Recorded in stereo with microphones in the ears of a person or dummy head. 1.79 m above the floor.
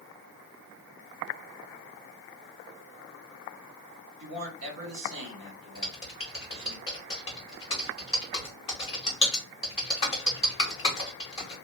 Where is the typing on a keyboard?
30° left (ahead or behind), 0.8 m.